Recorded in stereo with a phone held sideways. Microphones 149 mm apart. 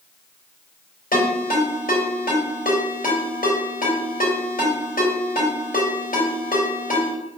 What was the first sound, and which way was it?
A ringtone, 75° left (ahead or behind).